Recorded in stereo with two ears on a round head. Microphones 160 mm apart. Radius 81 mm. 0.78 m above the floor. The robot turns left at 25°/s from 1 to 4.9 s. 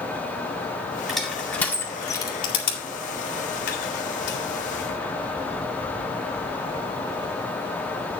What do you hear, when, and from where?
1.1 s crushing: centre (ahead or behind), 2 m; by 4.4 s 70° left (ahead or behind), 2 m